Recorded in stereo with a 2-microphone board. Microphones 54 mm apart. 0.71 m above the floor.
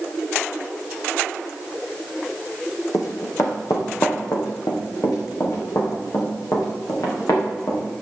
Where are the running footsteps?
75° left (ahead or behind), 2.5 m; by 7.8 s 85° left, 5.5 m.